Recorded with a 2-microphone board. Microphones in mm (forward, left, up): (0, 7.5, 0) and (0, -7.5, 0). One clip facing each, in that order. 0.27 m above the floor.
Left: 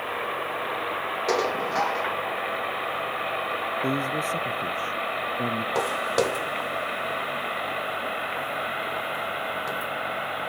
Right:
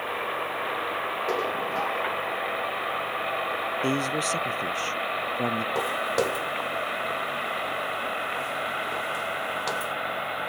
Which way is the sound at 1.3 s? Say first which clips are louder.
Left 5 dB; 55° left (ahead or behind).